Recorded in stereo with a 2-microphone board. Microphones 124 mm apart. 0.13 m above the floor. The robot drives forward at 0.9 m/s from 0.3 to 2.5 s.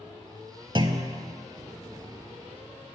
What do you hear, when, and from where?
0.8 s a clunk: 40° right (ahead or behind), 0.5 m; by 1.2 s 25° right (ahead or behind), 0.8 m